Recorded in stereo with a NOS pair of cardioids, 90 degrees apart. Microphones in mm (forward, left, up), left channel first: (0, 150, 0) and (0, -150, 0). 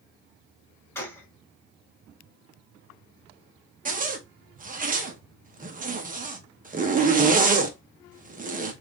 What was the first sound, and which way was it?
A gunshot, 10° left.